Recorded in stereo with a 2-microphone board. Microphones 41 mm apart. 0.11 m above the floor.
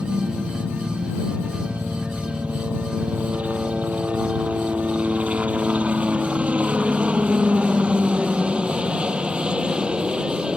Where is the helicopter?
40° right (ahead or behind); by 10.6 s 20° right (ahead or behind).